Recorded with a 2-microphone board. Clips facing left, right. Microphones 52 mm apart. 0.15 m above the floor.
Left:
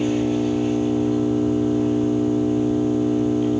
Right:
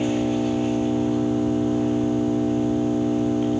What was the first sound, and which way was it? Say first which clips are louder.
An engine running: left 2 dB; 20° right (ahead or behind).